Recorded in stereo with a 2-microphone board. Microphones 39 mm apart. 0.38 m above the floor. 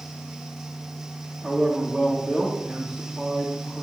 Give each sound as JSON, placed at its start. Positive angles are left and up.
{"t": 1.4, "sound": "a man speaking", "side_deg": -10, "distance_m": 1.8}